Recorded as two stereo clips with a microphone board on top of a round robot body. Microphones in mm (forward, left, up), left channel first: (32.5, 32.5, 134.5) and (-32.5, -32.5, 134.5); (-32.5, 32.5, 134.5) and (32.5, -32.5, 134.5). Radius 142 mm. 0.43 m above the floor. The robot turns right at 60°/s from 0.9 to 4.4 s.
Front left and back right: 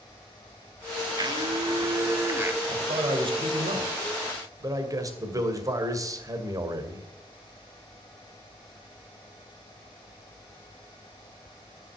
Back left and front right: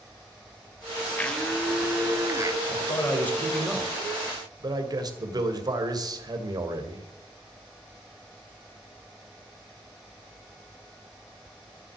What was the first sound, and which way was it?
A blender, 160° right.